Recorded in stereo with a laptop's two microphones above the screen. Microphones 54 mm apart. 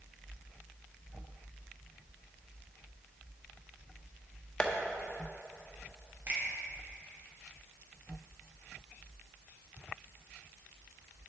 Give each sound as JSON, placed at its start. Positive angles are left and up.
{"t": 4.6, "sound": "tapping", "side_deg": 20, "distance_m": 0.7}
{"t": 6.3, "sound": "a finger snap", "side_deg": -30, "distance_m": 2.5}